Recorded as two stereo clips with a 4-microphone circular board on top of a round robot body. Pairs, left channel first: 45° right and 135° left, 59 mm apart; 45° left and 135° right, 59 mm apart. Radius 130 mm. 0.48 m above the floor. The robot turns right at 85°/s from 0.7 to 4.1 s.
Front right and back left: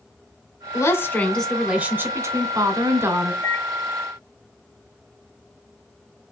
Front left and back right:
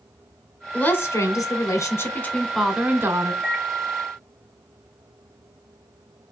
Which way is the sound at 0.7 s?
25° right.